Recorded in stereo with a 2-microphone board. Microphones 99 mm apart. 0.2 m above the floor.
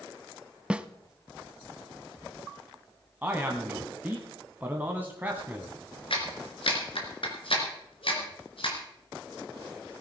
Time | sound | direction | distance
0.7 | a snare drum | 10° right (ahead or behind) | 0.6 m
3.2 | a man speaking | 20° right (ahead or behind) | 1.3 m
6.1 | a clap | 60° left (ahead or behind) | 2.5 m